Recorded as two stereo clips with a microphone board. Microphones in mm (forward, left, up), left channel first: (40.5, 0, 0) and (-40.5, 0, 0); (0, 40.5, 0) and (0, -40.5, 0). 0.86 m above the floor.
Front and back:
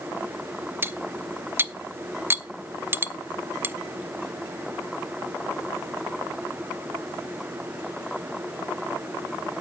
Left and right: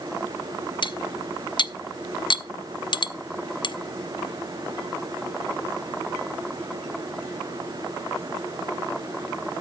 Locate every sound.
0.8 s cutlery clinking: 115° left, 0.6 m